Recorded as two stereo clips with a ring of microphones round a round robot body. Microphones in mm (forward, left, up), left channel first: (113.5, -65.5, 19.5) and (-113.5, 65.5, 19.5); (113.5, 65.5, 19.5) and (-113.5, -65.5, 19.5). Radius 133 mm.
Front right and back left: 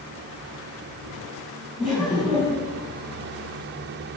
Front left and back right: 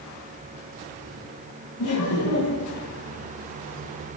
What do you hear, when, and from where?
1.8 s laughter: 60° left, 4 m